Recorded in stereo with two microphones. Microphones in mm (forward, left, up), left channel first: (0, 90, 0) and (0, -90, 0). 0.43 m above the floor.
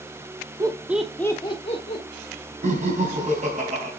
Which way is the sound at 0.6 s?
20° right (ahead or behind).